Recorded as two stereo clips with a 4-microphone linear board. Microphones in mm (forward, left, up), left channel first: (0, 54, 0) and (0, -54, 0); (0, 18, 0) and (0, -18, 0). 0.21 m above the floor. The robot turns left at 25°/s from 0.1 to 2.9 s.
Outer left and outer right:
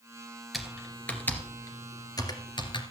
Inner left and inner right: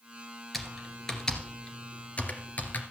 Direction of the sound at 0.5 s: Centre (ahead or behind).